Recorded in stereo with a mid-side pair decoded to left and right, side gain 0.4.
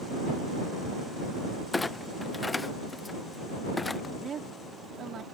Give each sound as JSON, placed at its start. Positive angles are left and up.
{"t": 1.7, "sound": "a clunk", "azimuth_deg": 20}
{"t": 4.2, "sound": "a woman speaking", "azimuth_deg": -55}